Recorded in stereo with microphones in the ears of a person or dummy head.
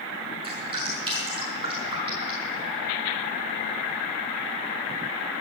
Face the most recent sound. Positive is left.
turn(degrees=-30)  # may be behind; listen again after turning